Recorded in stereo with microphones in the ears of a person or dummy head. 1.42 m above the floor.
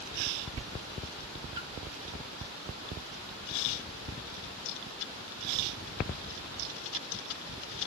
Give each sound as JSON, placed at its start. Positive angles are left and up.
{"t": 1.6, "sound": "a splash", "side_deg": -20, "distance_m": 0.7}